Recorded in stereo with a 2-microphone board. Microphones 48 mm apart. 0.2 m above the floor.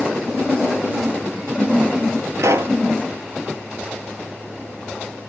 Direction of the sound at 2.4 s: 80° right.